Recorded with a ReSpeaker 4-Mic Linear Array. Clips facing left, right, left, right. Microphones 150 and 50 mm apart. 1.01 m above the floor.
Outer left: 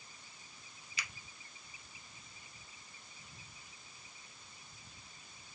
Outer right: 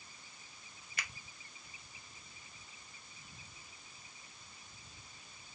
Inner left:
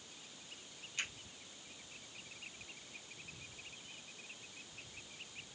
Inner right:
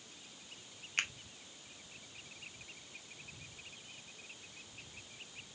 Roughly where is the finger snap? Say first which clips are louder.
Outer right 1 dB, inner right 6 dB; right.